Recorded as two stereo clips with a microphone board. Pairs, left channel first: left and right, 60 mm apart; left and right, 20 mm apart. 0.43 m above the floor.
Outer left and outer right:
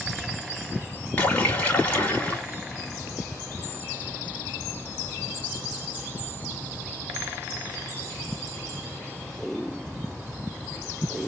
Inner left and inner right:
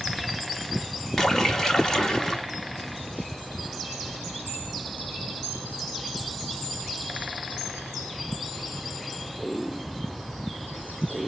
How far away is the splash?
About 1.6 m.